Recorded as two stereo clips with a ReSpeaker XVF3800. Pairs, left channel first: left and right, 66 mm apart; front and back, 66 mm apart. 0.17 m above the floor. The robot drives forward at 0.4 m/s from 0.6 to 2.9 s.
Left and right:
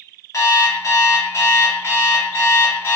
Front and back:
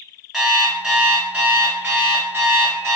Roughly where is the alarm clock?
Left.